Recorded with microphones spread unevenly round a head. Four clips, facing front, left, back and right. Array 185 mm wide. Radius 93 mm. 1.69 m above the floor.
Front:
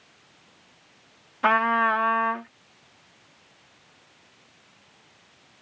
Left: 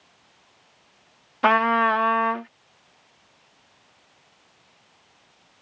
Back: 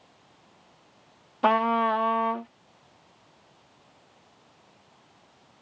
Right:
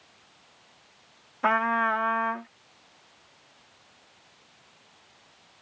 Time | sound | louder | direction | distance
1.4 | a trumpet | left 5 dB, front 1 dB | 110° left | ?